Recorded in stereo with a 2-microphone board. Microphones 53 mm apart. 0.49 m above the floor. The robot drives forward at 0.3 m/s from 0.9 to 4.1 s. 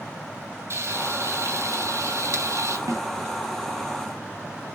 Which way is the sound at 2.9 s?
65° right (ahead or behind).